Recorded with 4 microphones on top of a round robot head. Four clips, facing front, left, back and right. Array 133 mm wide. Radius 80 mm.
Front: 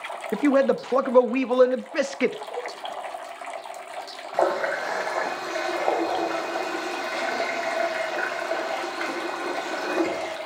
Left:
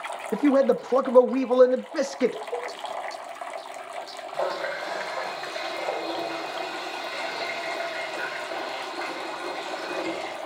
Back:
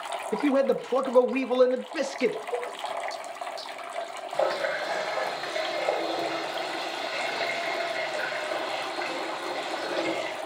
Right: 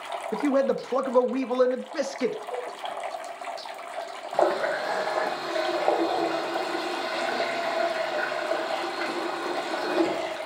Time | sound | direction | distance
0.3 | a man speaking | 20° left | 1.1 m
2.5 | a cowbell | 45° right | 7.5 m
4.3 | a running tap | 45° right | 1.3 m